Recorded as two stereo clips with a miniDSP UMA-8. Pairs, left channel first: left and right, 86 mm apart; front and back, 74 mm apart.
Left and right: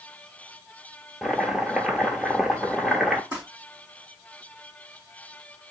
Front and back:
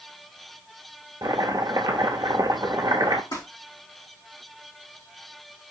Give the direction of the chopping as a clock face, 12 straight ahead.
6 o'clock.